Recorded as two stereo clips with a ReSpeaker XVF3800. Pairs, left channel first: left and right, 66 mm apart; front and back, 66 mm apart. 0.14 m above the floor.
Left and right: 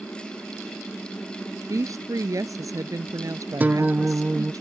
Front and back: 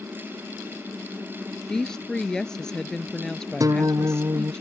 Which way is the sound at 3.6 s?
155° right.